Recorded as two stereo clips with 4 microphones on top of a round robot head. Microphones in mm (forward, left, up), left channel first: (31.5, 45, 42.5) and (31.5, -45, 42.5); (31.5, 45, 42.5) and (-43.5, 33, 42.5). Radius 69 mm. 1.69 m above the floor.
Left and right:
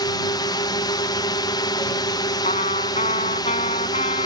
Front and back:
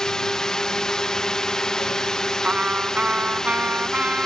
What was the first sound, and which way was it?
A drone, 90° left.